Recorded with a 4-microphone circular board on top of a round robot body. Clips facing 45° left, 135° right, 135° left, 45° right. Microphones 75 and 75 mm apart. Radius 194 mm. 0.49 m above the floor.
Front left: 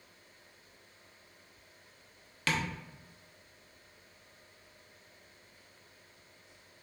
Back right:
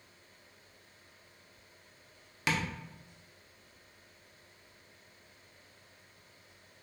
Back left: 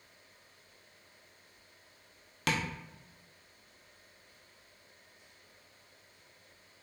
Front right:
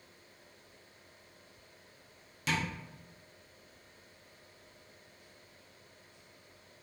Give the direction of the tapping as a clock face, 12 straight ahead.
7 o'clock.